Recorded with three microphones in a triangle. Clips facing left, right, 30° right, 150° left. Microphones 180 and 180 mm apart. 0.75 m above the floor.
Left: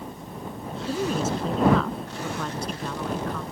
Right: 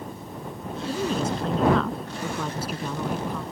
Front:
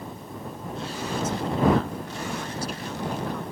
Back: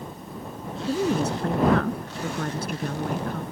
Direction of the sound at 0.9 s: 175° left.